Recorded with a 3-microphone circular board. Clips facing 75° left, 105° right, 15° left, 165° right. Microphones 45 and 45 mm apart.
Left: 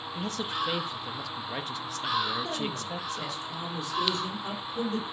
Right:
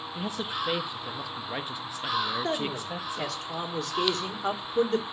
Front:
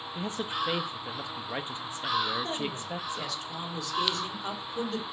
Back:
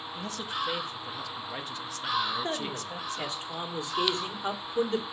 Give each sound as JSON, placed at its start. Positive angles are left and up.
{"t": 0.1, "sound": "a man speaking", "azimuth_deg": -30, "distance_m": 0.7}
{"t": 2.4, "sound": "a man speaking", "azimuth_deg": -105, "distance_m": 1.8}